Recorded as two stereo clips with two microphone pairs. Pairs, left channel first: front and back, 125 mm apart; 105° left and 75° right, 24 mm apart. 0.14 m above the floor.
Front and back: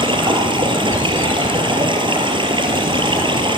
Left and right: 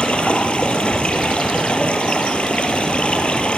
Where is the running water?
135° left, 3 m.